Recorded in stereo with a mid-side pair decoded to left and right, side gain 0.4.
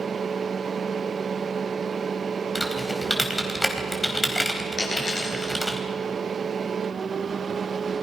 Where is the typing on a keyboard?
10° left, 4 m.